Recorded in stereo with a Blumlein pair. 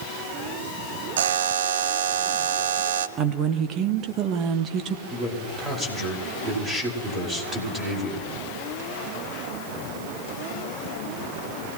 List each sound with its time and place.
1.2 s a buzzer: 60° right, 0.7 m
3.2 s a woman speaking: 30° right, 1.5 m
5.1 s a man speaking: 10° right, 5 m